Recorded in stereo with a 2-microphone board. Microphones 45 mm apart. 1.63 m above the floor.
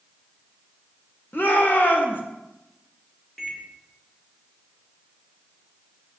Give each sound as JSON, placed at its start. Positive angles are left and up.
{"t": 1.3, "sound": "a shout", "side_deg": 45, "distance_m": 1.9}
{"t": 3.4, "sound": "a microwave", "side_deg": 10, "distance_m": 1.9}